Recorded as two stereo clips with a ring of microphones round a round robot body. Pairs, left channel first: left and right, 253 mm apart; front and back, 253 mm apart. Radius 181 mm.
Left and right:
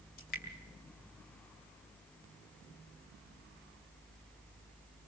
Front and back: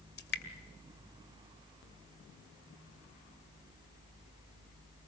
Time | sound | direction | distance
0.2 | dripping | 40° left | 1.8 m